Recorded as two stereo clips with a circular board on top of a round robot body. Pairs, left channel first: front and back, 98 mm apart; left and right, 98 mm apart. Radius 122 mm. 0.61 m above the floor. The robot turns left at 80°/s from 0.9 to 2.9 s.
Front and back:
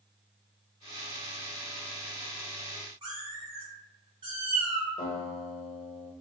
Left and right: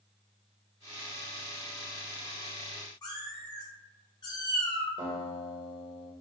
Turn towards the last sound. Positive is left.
turn(degrees=-45)